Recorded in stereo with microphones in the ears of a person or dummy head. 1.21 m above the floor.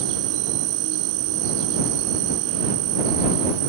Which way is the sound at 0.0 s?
70° right (ahead or behind).